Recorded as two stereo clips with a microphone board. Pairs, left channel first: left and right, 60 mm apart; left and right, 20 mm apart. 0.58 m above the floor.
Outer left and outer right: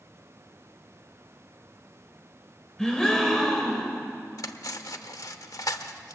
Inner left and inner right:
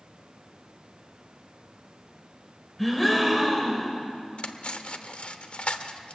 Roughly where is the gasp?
Centre.